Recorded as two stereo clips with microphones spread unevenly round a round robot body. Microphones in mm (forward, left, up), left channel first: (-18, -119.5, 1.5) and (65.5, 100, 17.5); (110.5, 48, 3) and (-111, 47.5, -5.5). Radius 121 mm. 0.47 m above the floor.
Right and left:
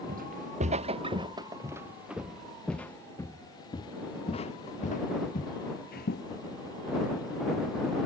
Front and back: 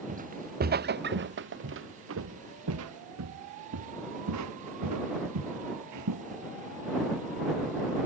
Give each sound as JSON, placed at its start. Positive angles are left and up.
{"t": 0.1, "sound": "footsteps", "azimuth_deg": 125}